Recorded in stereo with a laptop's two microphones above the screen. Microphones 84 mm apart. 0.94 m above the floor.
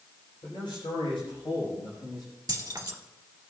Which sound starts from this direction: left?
A man speaking, at 0.4 s.